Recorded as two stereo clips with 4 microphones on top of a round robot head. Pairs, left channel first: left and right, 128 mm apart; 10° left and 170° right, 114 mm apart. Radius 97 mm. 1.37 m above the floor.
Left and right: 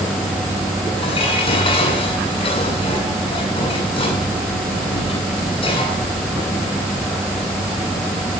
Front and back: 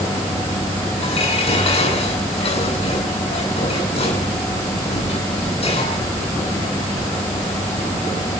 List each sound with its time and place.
1.0 s dishes clattering: 45° left, 9 m